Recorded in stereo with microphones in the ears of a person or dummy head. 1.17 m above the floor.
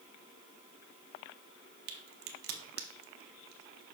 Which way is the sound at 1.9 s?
50° right (ahead or behind).